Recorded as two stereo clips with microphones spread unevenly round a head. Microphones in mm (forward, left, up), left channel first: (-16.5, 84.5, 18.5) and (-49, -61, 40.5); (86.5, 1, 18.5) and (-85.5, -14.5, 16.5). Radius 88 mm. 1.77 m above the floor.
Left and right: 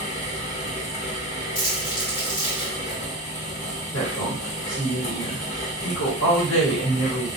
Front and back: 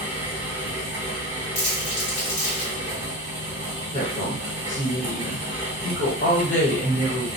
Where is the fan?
125° left, 1.0 m.